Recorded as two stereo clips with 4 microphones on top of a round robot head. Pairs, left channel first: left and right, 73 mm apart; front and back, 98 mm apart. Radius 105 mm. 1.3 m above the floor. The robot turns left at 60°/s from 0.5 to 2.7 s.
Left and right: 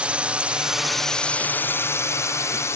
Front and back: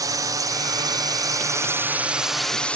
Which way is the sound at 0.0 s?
155° right.